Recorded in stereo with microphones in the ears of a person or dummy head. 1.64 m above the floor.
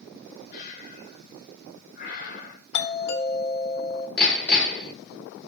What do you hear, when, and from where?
0.5 s breathing: 45° left (ahead or behind), 1.4 m
2.7 s a doorbell: 70° left (ahead or behind), 1.7 m
4.2 s hammering: 5° left (ahead or behind), 4 m